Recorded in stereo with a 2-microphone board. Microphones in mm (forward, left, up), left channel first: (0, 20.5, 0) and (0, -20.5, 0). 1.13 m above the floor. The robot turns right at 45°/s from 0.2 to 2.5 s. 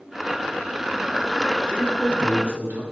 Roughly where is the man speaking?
Right.